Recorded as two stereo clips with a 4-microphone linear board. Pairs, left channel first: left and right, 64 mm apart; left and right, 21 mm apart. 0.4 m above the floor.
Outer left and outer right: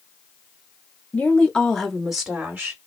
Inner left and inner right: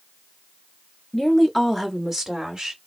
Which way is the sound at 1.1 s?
20° left (ahead or behind).